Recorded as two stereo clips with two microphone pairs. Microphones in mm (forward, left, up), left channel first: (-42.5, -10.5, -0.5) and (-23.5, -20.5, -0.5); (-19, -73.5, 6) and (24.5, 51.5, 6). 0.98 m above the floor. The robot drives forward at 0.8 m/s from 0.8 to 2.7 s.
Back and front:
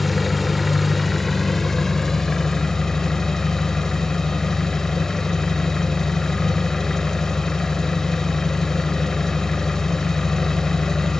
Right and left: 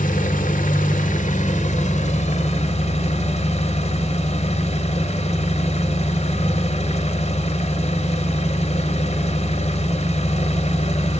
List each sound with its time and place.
0.0 s an engine running: 120° right, 2 m; by 11.2 s 145° right, 3 m